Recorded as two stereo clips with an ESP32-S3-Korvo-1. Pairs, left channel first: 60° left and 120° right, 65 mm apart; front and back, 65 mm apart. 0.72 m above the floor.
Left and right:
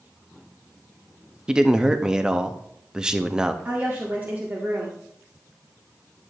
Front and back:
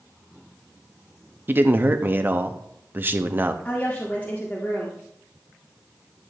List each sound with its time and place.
1.5 s a man speaking: 170° left, 0.7 m
3.6 s a woman speaking: 60° right, 1.7 m